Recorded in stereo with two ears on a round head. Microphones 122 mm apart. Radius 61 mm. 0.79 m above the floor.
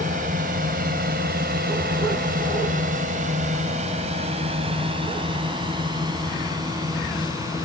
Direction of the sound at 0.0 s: 60° right (ahead or behind).